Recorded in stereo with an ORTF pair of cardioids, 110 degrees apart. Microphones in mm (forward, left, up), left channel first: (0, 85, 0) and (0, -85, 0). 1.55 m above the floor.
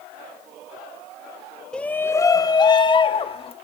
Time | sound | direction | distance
1.7 | a shout | 5° left | 1.3 m